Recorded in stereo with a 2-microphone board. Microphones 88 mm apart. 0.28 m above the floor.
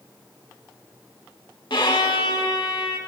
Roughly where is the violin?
Left.